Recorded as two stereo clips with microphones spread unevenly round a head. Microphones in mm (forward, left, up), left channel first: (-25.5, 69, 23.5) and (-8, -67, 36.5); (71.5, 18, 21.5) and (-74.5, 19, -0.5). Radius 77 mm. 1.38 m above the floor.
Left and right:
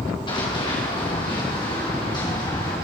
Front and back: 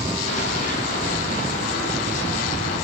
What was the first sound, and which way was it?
Running footsteps, 35° left.